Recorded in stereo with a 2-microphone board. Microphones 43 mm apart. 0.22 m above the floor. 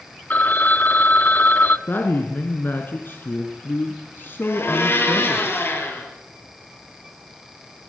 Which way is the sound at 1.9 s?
55° left (ahead or behind).